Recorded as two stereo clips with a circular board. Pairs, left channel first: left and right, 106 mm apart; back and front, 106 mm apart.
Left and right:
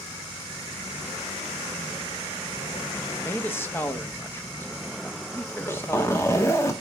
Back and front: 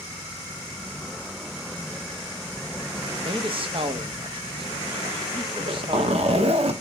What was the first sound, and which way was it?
A man speaking, 25° left.